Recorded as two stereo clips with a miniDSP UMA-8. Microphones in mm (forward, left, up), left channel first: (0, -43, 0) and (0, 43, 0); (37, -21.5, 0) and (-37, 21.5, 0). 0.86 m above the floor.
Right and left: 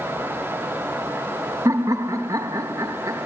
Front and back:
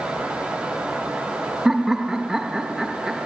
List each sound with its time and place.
1.6 s laughter: 65° left, 1.0 m